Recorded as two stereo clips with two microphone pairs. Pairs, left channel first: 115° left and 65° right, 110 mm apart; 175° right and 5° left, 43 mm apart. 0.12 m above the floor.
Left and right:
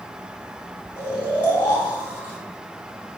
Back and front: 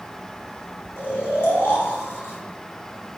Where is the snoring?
170° left, 1.7 m.